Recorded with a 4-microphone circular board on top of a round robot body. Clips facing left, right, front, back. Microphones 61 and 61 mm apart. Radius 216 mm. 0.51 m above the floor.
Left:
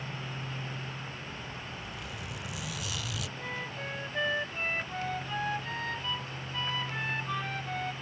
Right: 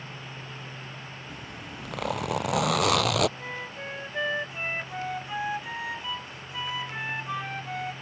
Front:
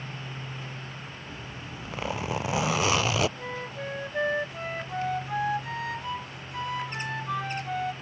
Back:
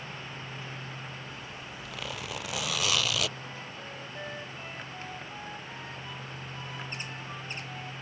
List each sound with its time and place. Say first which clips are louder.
1.3 s a zipper: right 1 dB, front 2 dB; 65° right
3.4 s a flute: right 1 dB, front 7 dB; 10° right